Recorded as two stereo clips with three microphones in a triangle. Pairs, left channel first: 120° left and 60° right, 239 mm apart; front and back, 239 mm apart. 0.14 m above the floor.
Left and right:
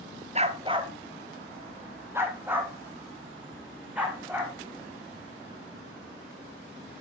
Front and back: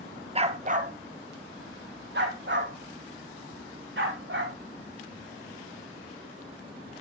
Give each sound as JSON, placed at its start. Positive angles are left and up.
{"t": 0.3, "sound": "a dog barking", "azimuth_deg": -120, "distance_m": 0.8}